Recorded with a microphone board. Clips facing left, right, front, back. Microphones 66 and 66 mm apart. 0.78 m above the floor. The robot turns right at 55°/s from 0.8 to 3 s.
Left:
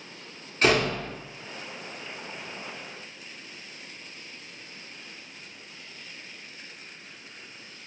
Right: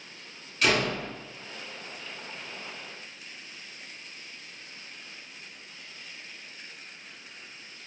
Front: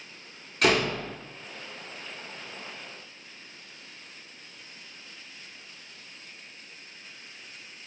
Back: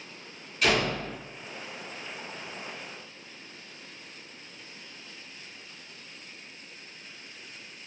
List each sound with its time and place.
0.6 s a door slam: 35° left, 1.0 m; by 1.1 s 50° left, 1.0 m